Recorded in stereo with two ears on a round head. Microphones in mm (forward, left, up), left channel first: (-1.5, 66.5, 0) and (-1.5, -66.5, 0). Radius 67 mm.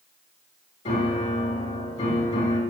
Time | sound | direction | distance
0.8 | a piano | 45° left (ahead or behind) | 1.7 m